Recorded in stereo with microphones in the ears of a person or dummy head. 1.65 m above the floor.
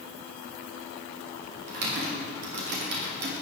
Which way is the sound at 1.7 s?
60° right (ahead or behind).